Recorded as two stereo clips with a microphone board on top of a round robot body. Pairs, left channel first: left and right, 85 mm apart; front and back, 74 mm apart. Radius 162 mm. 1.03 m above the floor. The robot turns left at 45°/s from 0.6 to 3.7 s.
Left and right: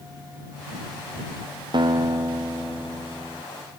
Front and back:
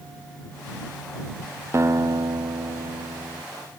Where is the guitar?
125° right; by 3.4 s 160° left.